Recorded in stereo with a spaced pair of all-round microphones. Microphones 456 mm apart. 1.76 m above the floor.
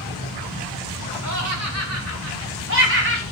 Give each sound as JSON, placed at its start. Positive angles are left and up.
{"t": 1.2, "sound": "laughter", "side_deg": -40, "distance_m": 3.0}